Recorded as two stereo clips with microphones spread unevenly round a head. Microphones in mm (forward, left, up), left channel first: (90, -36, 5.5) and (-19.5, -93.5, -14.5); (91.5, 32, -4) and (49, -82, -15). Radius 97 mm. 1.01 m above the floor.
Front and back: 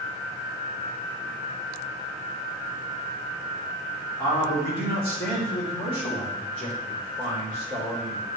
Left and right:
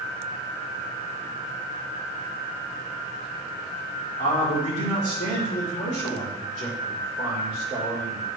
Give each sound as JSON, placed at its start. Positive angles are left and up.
{"t": 4.2, "sound": "a man speaking", "azimuth_deg": 50, "distance_m": 3.5}